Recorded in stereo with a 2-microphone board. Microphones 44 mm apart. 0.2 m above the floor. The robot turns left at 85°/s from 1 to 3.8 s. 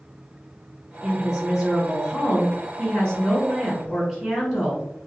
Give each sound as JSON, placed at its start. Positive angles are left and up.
{"t": 1.0, "sound": "a woman speaking", "azimuth_deg": -135, "distance_m": 1.6}